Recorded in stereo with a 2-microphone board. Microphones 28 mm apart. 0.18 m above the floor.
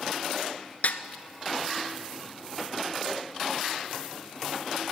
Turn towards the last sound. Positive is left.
turn(degrees=70)  # may be behind; listen again after turning